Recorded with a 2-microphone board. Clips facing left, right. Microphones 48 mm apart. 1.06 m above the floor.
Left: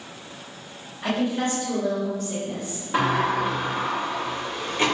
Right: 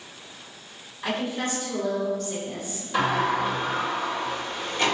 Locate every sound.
1.0 s a woman speaking: 45° left (ahead or behind), 1.4 m; by 2.8 s 5° left (ahead or behind), 1.4 m
2.9 s a sliding door: 25° left (ahead or behind), 1.1 m